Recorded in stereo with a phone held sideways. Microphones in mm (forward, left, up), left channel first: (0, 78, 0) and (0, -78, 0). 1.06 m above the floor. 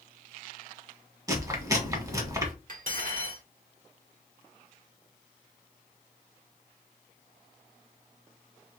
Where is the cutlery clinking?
60° right (ahead or behind), 1.5 m.